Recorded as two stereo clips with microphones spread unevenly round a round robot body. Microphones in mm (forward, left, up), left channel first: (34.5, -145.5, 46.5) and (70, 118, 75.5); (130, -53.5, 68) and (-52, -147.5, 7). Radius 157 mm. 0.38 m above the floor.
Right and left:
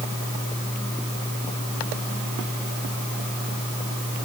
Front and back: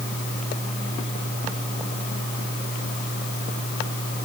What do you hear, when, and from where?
Only background noise.